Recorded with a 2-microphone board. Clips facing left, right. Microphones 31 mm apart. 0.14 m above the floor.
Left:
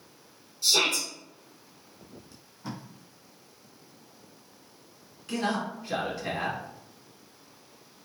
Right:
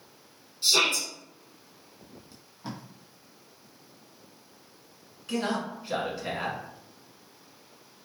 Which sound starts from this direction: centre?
A man speaking, at 5.3 s.